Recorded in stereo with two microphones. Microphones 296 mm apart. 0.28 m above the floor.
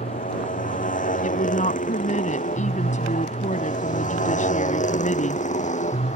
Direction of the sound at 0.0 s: 25° left (ahead or behind).